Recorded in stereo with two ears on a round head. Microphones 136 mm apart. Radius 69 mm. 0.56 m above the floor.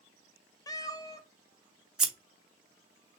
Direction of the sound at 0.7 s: 25° left (ahead or behind).